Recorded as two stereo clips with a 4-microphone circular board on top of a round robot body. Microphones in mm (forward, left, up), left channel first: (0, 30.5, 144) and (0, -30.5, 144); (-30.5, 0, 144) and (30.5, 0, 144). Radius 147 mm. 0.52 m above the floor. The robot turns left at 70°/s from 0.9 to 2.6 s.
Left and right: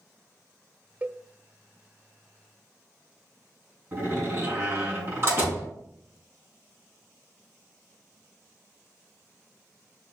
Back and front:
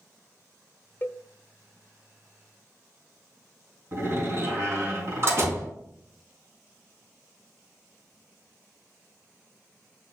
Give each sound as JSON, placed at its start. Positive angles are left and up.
{"t": 1.0, "sound": "a cowbell", "azimuth_deg": -145, "distance_m": 0.8}
{"t": 3.9, "sound": "a door slam", "azimuth_deg": -45, "distance_m": 5.0}